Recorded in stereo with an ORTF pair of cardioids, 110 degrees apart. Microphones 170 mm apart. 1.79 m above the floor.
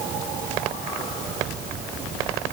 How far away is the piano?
No piano in this recording.